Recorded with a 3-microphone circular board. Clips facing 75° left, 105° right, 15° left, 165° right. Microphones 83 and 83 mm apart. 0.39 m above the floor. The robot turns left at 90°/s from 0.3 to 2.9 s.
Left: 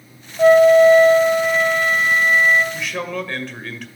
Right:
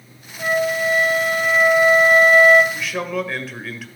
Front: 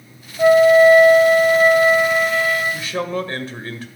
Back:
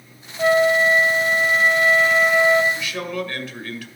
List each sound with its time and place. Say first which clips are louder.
0.4 s a flute: left 11 dB, front 7 dB; 90° left, 1.1 m; by 2.6 s 110° right, 1.1 m
2.7 s a man speaking: right 1 dB, front 3 dB; 5° right, 1.6 m; by 3.9 s 20° right, 1.6 m